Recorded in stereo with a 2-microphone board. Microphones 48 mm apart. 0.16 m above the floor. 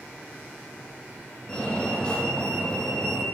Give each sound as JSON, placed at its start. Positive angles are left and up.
{"t": 1.5, "sound": "a fire alarm", "side_deg": 15, "distance_m": 8.0}